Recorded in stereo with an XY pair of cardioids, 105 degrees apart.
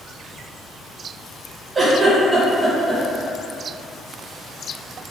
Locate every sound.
1.8 s a giggle: 30° right, 1.3 m